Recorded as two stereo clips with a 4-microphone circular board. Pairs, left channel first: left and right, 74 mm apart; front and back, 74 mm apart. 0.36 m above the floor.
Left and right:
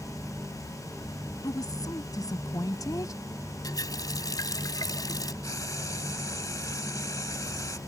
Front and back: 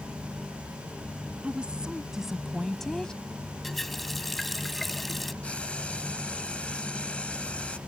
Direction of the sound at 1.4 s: 105° left.